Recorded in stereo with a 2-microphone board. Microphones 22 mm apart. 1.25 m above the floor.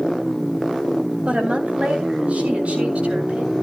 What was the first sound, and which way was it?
A woman speaking, 70° right (ahead or behind).